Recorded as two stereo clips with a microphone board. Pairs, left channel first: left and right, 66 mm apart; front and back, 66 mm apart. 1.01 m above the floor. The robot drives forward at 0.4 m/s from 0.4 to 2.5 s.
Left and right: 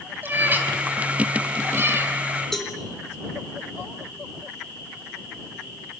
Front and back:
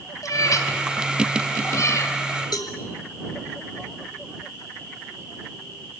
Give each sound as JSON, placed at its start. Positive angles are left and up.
{"t": 0.2, "sound": "a cat meowing", "azimuth_deg": -30, "distance_m": 3.5}
{"t": 2.5, "sound": "a cowbell", "azimuth_deg": 5, "distance_m": 4.0}